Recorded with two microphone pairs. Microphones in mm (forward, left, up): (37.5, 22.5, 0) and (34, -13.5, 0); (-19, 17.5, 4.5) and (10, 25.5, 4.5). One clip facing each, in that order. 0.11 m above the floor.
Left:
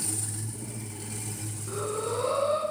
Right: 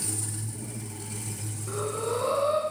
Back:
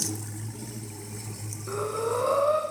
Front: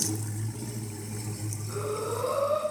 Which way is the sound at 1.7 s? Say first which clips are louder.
Right 1 dB, back 4 dB; 170° right.